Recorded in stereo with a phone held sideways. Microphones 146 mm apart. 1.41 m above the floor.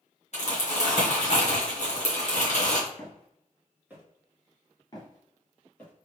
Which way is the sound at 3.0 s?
10° left (ahead or behind).